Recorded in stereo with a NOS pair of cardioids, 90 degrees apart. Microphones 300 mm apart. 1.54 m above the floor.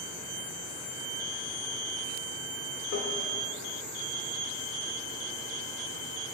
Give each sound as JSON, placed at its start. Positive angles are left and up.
{"t": 2.9, "sound": "tapping", "azimuth_deg": 50, "distance_m": 3.0}